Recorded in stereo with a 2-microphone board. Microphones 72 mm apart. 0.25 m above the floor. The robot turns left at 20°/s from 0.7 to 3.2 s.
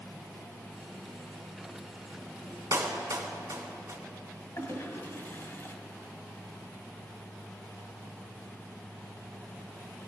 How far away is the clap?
About 1.7 m.